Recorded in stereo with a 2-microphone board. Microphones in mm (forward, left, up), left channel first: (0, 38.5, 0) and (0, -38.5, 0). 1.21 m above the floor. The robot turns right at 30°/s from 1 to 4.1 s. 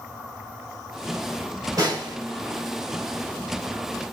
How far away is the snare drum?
About 3.5 m.